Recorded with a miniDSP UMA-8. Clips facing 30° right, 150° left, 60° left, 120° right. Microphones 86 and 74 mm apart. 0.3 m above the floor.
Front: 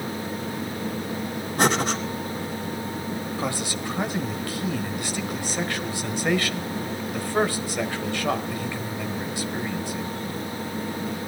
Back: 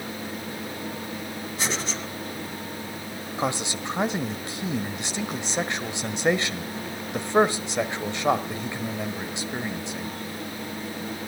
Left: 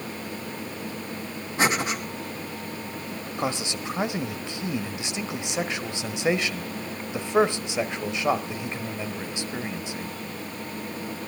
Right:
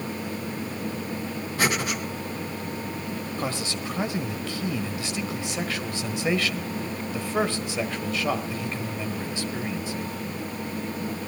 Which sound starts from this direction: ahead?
Breathing, at 1.6 s.